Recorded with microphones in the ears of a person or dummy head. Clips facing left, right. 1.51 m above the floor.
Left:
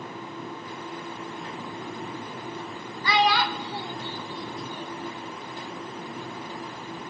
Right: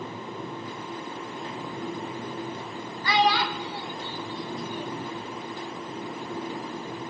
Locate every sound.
3.0 s a child speaking: 65° left (ahead or behind), 0.9 m; by 5.1 s 15° right (ahead or behind), 1.4 m